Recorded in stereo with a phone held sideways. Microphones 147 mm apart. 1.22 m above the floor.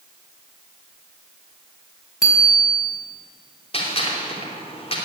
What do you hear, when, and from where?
2.2 s a bicycle bell: 5° right (ahead or behind), 6 m
3.7 s a gunshot: 40° left (ahead or behind), 3 m